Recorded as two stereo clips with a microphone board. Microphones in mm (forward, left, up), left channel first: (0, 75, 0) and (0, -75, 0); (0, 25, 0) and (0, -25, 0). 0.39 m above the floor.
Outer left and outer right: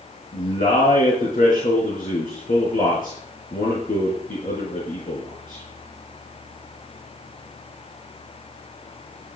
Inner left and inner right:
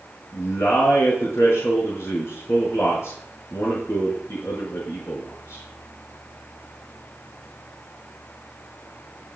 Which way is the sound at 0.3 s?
80° left.